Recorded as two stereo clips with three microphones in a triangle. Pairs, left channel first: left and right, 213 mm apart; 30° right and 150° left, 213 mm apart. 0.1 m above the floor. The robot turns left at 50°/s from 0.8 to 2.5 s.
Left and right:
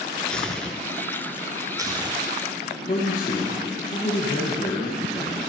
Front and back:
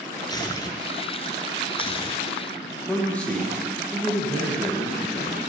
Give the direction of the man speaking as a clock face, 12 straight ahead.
10 o'clock.